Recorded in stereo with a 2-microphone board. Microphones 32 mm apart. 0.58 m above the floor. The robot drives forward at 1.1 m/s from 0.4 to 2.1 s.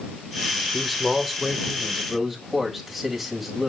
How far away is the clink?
No clink in this recording.